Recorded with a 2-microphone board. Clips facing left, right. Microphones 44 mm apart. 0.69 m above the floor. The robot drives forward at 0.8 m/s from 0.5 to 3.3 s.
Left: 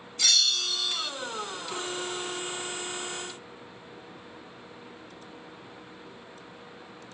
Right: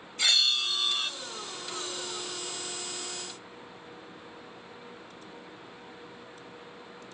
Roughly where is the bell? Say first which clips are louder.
Right 1 dB; right.